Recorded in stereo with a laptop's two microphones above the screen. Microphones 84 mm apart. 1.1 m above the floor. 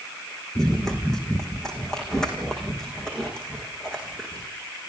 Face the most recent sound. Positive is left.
turn(degrees=10)  # may be behind; listen again after turning